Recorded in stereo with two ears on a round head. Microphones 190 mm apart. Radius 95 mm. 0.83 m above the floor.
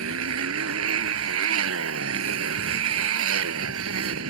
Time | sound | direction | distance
0.0 | a motorcycle | 75° right (ahead or behind) | ?